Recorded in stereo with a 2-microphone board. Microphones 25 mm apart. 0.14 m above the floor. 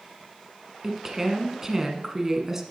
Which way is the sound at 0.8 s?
15° right (ahead or behind).